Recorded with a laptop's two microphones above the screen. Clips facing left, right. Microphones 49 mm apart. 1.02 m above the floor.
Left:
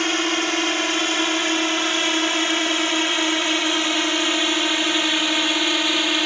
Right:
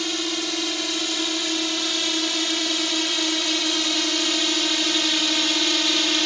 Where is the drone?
50° left (ahead or behind); by 6.3 s 20° left (ahead or behind).